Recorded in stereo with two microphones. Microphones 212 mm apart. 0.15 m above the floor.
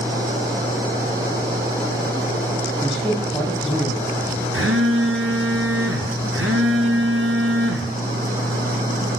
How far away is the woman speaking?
About 4.5 m.